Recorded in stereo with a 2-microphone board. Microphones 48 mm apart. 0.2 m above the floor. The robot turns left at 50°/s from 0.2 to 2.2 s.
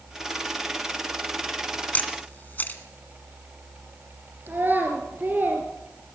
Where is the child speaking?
45° right (ahead or behind), 3 m.